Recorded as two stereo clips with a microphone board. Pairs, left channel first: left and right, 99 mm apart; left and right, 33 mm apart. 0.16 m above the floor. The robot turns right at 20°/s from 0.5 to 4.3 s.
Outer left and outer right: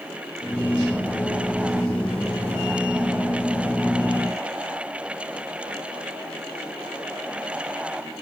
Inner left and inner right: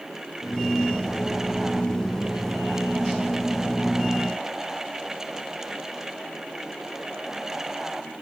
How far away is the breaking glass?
I don't hear breaking glass.